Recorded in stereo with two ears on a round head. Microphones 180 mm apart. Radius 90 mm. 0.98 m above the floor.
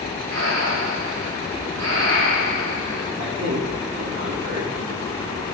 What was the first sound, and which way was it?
Breathing, 65° right (ahead or behind).